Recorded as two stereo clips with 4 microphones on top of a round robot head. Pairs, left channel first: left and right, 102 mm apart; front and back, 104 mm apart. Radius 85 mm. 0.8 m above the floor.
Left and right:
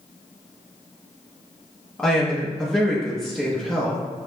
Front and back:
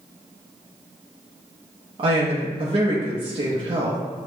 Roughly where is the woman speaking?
Behind.